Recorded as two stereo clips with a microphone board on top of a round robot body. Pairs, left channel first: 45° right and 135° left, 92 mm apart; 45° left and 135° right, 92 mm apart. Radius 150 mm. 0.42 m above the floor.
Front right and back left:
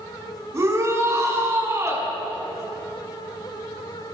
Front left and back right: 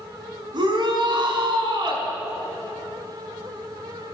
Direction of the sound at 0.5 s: 165° right.